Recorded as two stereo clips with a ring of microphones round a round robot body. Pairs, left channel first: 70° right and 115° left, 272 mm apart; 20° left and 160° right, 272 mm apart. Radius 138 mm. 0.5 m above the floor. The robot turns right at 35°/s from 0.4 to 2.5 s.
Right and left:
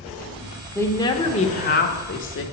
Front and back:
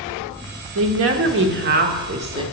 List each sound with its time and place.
0.8 s a woman speaking: 150° right, 1.3 m; by 2.4 s 90° right, 1.3 m